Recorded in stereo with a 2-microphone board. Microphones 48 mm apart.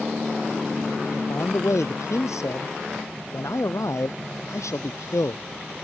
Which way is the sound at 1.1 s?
80° left.